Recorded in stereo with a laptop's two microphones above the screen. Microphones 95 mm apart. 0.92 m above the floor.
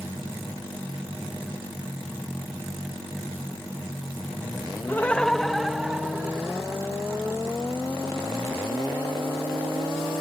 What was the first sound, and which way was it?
Laughter, 20° left (ahead or behind).